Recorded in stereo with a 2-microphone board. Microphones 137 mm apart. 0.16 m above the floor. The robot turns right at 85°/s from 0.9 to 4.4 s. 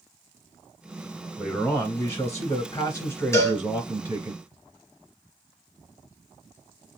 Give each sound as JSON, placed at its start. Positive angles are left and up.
{"t": 1.4, "sound": "a man speaking", "side_deg": -5, "distance_m": 1.1}
{"t": 3.3, "sound": "a cowbell", "side_deg": 20, "distance_m": 1.9}